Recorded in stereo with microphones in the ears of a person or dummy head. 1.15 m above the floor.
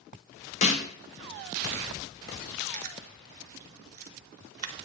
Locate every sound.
0.6 s a snare drum: 35° left (ahead or behind), 0.9 m
2.7 s chewing: 50° right (ahead or behind), 0.6 m